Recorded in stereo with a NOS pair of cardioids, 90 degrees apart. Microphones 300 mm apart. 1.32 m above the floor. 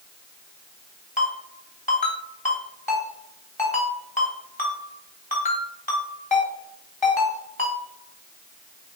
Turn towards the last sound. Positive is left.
turn(degrees=25)